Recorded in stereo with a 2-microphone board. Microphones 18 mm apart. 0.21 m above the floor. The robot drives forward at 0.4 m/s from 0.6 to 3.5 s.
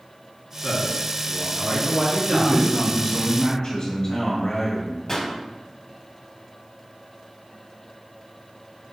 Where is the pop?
20° left (ahead or behind), 1.2 m.